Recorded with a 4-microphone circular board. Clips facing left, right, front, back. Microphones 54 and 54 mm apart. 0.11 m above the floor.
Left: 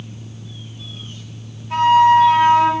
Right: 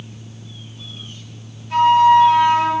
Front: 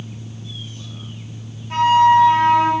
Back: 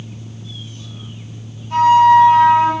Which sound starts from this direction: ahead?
A flute, at 1.7 s.